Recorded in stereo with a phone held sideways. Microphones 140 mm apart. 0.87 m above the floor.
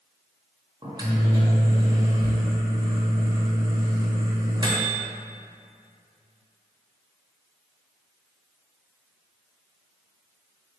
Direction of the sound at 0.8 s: 30° right (ahead or behind).